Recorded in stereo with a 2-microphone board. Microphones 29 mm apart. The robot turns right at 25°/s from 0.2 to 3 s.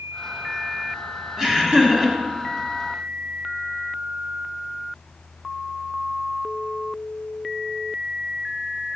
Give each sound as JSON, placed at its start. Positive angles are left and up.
{"t": 1.4, "sound": "laughter", "side_deg": -25, "distance_m": 1.3}